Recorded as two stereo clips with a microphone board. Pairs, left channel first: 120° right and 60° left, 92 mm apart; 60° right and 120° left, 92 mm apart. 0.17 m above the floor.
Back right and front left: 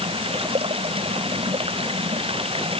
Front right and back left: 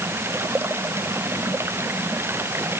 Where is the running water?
55° left.